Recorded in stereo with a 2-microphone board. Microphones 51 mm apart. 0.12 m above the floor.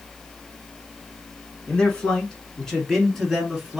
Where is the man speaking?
20° left (ahead or behind), 1.4 m; by 3.8 s 10° right (ahead or behind), 1.5 m.